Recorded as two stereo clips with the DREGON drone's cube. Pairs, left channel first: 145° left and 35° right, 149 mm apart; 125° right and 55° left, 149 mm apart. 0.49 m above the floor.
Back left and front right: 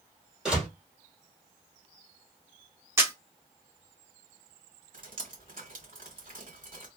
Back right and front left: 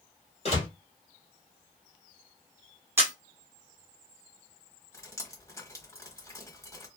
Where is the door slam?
120° right, 1.0 m.